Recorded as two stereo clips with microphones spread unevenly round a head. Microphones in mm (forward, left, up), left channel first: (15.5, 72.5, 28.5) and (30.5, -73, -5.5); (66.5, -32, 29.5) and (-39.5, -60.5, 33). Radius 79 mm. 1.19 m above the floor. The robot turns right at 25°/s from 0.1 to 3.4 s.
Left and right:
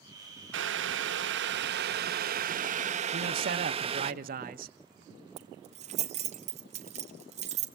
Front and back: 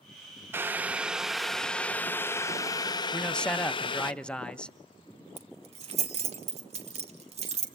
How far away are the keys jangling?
About 2.0 m.